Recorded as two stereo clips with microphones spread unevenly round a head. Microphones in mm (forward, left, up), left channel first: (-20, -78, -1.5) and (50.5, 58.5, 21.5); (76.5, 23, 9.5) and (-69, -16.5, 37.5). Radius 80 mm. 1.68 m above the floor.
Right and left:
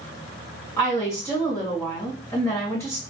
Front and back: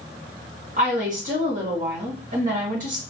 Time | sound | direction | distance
0.8 | a woman speaking | 165° left | 1.6 m